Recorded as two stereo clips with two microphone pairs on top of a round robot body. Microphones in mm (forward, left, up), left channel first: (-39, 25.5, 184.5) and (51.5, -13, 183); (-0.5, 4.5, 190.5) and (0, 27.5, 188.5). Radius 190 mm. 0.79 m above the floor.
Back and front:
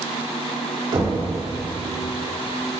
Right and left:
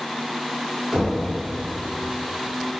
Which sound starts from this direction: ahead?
Knocking, at 0.9 s.